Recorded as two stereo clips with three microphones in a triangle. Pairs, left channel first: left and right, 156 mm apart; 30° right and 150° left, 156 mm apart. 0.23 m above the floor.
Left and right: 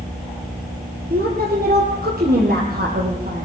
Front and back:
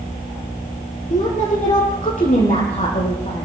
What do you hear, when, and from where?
1.1 s a woman speaking: 70° right, 6.5 m